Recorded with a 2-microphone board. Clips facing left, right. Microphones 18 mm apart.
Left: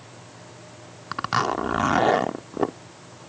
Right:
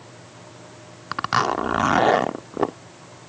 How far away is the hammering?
No hammering in this recording.